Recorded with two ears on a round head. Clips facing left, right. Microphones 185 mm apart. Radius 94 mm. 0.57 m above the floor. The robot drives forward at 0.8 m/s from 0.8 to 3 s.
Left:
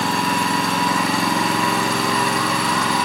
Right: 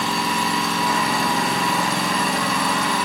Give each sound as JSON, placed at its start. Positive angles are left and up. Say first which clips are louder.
{"t": 0.0, "sound": "an engine running", "louder": "left 2 dB", "side_deg": 45, "distance_m": 8.0}